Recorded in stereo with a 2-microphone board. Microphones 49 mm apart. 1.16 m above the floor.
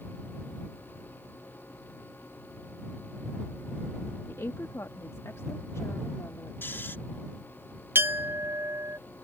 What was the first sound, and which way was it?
A woman speaking, 80° left.